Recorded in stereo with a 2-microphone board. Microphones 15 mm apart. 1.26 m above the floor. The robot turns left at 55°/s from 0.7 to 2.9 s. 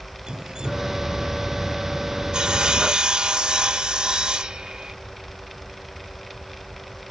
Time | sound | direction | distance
0.3 | dripping | 50° right (ahead or behind) | ?
2.3 | sawing | 70° right | ?